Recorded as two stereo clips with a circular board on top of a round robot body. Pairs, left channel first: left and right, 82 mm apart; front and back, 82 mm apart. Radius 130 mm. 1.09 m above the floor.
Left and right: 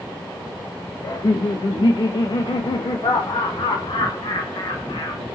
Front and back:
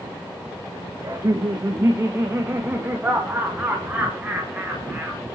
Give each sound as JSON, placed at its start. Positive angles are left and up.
{"t": 1.0, "sound": "laughter", "azimuth_deg": 130, "distance_m": 1.8}